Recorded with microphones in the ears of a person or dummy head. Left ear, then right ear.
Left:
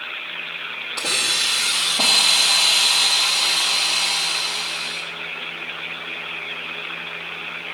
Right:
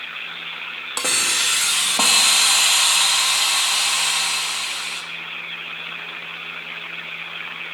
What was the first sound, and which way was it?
A hiss, 40° right (ahead or behind).